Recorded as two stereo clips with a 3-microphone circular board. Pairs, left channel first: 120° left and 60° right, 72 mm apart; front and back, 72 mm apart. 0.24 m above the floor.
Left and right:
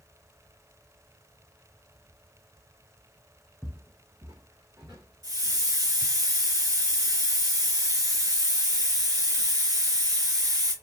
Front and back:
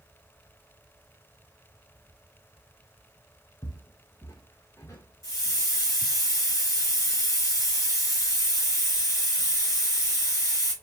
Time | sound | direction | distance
3.6 | footsteps | 20° left | 0.5 m
5.2 | a hiss | 45° right | 3 m